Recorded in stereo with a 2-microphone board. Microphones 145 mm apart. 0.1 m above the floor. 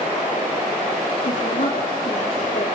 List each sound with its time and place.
1.2 s a woman speaking: 40° left (ahead or behind), 4 m